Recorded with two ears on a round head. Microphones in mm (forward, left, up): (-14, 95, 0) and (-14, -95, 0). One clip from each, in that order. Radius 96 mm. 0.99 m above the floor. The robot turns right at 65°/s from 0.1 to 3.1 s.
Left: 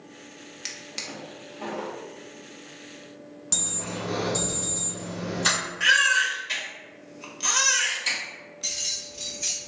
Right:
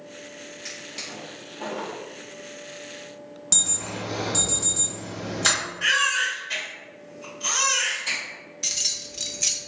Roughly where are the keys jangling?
Right.